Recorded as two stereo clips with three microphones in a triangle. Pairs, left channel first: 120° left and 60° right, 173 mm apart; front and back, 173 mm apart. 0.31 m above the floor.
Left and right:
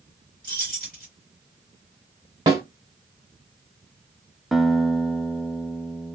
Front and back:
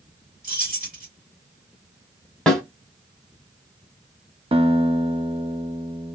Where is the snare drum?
80° right, 1.4 m.